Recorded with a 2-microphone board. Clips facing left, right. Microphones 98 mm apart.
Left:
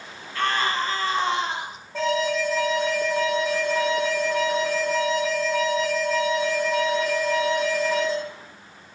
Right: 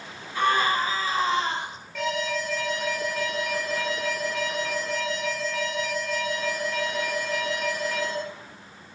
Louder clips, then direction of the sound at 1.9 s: Left 5 dB; 30° left (ahead or behind).